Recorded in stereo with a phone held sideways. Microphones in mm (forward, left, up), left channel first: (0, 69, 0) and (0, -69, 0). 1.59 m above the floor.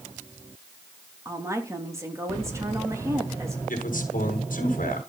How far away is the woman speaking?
About 3 m.